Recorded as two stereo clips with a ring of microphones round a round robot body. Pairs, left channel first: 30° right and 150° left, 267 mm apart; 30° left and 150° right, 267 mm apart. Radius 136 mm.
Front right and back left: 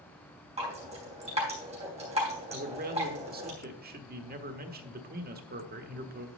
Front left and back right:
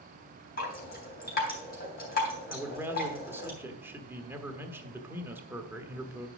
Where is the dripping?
85° left, 3.5 m.